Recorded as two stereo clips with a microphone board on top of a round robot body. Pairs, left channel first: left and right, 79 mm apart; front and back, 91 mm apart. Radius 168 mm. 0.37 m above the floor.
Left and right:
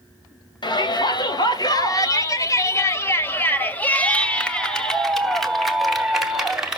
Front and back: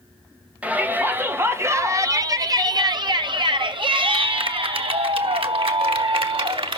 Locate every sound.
0.6 s a shout: 105° left, 2.5 m; by 6.8 s 170° right, 3.5 m